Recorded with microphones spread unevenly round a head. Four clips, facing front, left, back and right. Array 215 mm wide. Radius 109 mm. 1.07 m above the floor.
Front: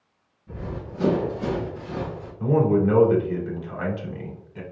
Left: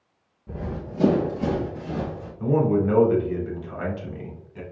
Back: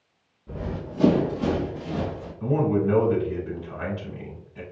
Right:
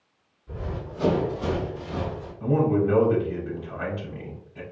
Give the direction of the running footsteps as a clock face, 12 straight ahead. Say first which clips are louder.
Left 2 dB, back 2 dB; 8 o'clock.